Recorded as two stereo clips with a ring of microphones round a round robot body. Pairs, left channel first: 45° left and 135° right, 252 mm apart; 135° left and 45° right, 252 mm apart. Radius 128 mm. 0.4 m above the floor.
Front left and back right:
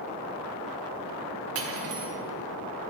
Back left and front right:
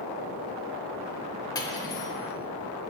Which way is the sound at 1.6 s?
150° right.